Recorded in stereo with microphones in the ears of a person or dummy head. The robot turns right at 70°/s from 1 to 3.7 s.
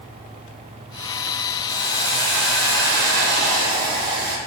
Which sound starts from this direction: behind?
A hiss, at 1.7 s.